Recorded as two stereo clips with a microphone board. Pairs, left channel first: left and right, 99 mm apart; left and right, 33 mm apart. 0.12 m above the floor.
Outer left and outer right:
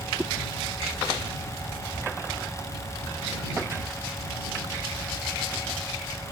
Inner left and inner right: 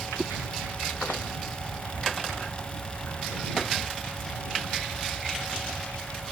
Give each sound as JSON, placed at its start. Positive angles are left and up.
{"t": 0.2, "sound": "a whoosh", "side_deg": 5}